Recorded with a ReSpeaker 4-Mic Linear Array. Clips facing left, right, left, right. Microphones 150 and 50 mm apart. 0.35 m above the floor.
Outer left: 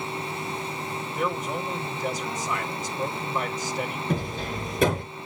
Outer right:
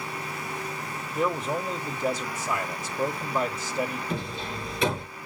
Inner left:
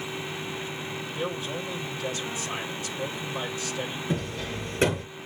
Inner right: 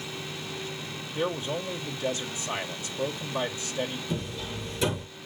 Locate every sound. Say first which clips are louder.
1.1 s a man speaking: outer right 2 dB, inner right 3 dB; 20° right (ahead or behind), 1.2 m
4.1 s hammering: outer left 3 dB, inner left 3 dB; 45° left (ahead or behind), 7 m